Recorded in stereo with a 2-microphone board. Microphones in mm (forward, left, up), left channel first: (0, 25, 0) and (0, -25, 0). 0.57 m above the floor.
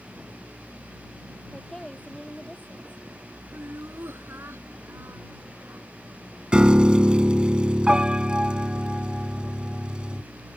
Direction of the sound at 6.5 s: 20° right (ahead or behind).